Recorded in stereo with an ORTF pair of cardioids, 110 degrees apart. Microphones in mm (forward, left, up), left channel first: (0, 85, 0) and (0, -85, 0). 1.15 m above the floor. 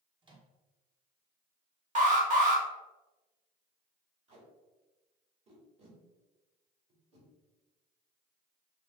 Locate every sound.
0.2 s a microwave: 30° right, 1.2 m
1.9 s an alarm: 50° right, 1.6 m
4.3 s tape being pulled: 40° right, 2 m